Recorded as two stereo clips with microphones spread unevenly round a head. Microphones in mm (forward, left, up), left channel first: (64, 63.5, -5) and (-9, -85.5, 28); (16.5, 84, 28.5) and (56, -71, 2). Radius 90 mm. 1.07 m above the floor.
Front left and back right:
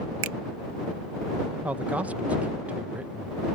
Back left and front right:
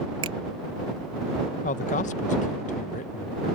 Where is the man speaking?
155° left.